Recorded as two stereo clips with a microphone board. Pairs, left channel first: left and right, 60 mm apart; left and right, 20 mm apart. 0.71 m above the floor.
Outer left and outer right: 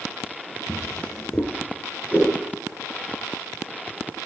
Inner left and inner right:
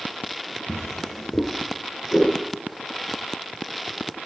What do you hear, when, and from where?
0.7 s a drawer: 15° left (ahead or behind), 3.5 m
2.1 s a whoosh: 20° right (ahead or behind), 5 m